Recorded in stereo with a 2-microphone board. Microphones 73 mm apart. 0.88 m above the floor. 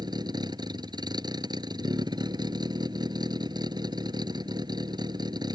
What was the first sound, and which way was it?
A vehicle, 80° right.